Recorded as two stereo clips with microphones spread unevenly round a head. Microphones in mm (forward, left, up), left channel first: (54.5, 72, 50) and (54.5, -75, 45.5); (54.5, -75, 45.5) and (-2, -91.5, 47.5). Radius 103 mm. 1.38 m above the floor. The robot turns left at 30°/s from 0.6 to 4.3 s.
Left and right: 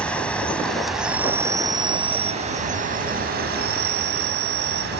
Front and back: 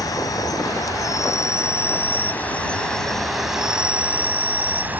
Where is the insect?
10° left; by 5.0 s 105° right.